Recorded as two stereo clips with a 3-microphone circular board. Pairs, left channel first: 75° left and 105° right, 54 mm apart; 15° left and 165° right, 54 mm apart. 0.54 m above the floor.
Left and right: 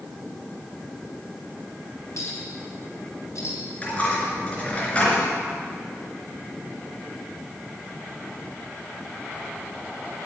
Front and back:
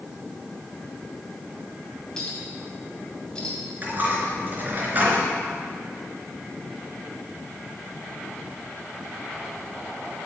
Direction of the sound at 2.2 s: 90° left.